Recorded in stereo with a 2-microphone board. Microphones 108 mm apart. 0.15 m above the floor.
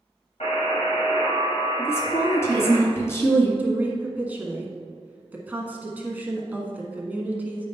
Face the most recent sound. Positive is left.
turn(degrees=-15)  # may be behind; listen again after turning